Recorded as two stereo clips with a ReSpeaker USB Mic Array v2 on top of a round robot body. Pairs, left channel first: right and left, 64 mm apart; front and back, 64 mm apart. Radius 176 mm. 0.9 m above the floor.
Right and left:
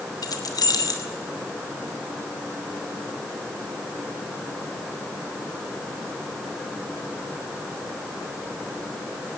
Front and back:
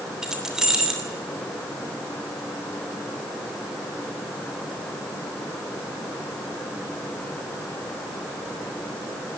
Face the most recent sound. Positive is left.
turn(degrees=-100)